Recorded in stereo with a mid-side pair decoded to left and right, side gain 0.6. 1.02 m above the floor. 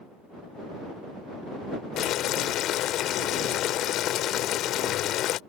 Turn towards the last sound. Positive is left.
turn(degrees=60)